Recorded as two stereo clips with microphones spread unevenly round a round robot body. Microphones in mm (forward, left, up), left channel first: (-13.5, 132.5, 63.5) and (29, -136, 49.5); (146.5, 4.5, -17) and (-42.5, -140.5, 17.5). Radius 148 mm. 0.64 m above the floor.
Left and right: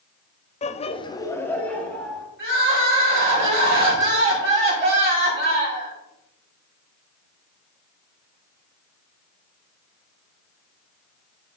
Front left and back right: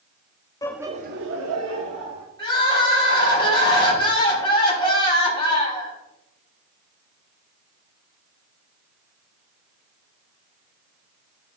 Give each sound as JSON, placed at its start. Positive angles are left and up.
{"t": 0.6, "sound": "laughter", "azimuth_deg": 60, "distance_m": 0.6}
{"t": 2.4, "sound": "crying", "azimuth_deg": -30, "distance_m": 5.0}